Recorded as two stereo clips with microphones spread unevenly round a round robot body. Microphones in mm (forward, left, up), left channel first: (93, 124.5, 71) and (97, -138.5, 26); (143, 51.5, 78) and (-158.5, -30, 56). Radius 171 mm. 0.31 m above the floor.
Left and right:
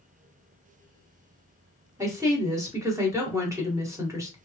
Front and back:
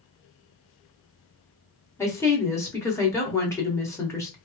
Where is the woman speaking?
65° right, 1.3 m.